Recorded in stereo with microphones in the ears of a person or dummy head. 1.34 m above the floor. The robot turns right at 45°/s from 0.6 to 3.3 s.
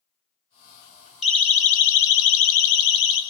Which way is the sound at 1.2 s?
5° left (ahead or behind).